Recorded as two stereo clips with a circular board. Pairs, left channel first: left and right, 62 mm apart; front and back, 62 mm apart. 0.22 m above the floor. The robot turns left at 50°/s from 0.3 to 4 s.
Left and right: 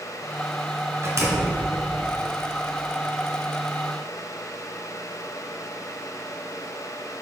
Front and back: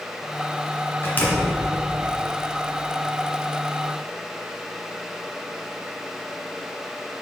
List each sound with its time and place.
1.0 s a door slam: 50° right, 2 m; by 1.6 s 75° right, 2 m